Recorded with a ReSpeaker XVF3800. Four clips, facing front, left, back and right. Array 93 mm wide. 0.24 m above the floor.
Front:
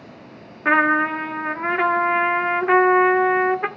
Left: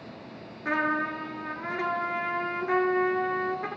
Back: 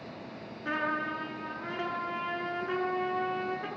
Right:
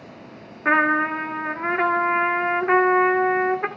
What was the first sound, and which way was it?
A trumpet, 35° right.